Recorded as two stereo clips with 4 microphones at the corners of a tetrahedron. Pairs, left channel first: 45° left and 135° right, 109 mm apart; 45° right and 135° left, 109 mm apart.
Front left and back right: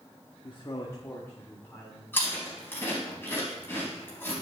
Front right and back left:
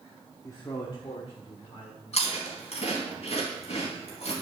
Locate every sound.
0.4 s a man speaking: 10° left, 1.0 m; by 2.0 s 30° right, 2.5 m
2.1 s chewing: 25° right, 4 m